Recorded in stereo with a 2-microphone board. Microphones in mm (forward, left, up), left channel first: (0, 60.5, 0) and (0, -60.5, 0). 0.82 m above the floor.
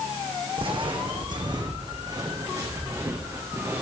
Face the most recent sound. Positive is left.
turn(degrees=-20)  # may be behind; listen again after turning